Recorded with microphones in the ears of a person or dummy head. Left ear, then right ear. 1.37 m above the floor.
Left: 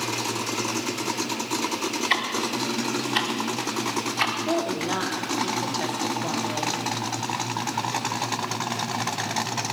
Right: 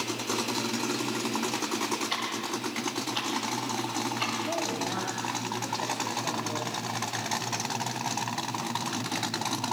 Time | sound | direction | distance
2.1 | ticking | 50° left (ahead or behind) | 1.2 m
4.5 | a woman speaking | 70° left (ahead or behind) | 2.5 m